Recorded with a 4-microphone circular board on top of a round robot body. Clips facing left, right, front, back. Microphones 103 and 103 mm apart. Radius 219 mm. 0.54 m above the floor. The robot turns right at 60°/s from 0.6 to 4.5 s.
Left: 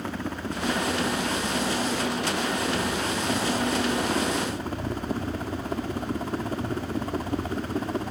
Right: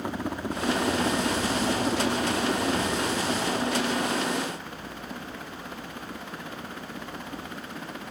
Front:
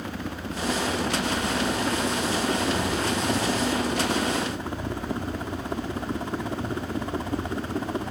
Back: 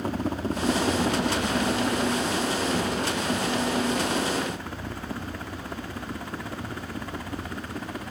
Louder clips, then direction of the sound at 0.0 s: Right 1 dB, back 5 dB; 160° right.